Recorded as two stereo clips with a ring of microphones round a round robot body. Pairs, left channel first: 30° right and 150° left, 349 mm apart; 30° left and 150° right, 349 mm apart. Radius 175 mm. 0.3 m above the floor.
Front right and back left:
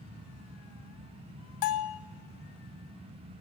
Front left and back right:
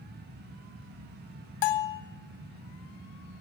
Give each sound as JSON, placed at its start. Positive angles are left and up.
{"t": 1.6, "sound": "a bell", "azimuth_deg": 15, "distance_m": 0.6}